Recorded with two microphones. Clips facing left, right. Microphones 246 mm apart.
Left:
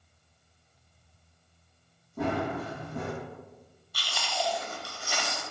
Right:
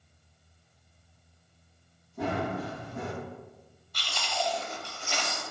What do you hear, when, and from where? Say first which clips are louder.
2.2 s running footsteps: left 1 dB; 60° left (ahead or behind), 1.9 m
3.9 s chewing: even; 10° left (ahead or behind), 0.7 m